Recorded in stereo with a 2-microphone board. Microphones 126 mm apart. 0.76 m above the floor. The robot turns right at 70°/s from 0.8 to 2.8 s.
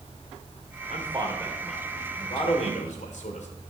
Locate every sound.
0.9 s a man speaking: 55° right (ahead or behind), 2 m; by 3.5 s 70° left (ahead or behind), 2 m